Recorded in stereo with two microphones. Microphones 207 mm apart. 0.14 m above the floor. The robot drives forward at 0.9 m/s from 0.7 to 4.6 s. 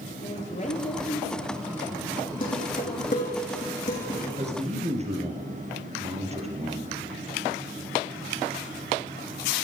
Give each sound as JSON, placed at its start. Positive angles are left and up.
{"t": 0.2, "sound": "a woman speaking", "side_deg": 35, "distance_m": 3.0}
{"t": 2.4, "sound": "dishes clattering", "side_deg": 40, "distance_m": 5.5}
{"t": 4.4, "sound": "a man speaking", "side_deg": -30, "distance_m": 3.0}